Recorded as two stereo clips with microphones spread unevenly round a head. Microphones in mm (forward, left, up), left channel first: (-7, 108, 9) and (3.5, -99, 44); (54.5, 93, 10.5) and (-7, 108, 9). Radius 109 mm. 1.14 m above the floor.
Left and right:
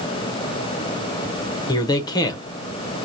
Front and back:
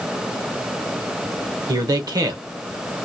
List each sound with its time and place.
1.7 s a man speaking: 160° left, 0.8 m